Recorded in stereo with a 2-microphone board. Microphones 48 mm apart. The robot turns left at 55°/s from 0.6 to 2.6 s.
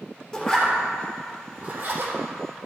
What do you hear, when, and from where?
0.3 s a zipper: 10° left (ahead or behind), 3.5 m; by 2.1 s 75° right (ahead or behind), 3.5 m